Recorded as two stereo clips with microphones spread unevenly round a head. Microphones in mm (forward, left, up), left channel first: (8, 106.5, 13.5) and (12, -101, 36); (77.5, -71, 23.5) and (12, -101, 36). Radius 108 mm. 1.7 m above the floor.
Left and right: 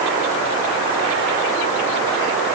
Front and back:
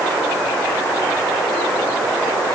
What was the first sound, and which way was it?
Only background noise.